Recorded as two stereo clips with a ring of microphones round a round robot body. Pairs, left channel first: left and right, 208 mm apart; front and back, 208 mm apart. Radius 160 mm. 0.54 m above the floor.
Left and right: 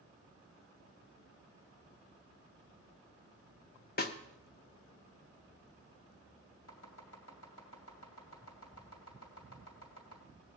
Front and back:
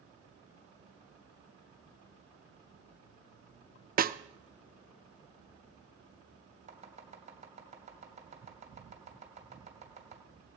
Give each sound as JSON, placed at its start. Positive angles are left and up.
{"t": 4.0, "sound": "a snare drum", "azimuth_deg": 130, "distance_m": 0.7}
{"t": 6.7, "sound": "chopping", "azimuth_deg": 125, "distance_m": 2.5}